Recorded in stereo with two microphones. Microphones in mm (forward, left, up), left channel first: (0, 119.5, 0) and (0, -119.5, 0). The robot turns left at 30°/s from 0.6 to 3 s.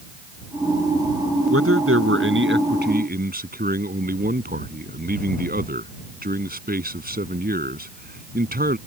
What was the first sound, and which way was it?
A man speaking, 90° right.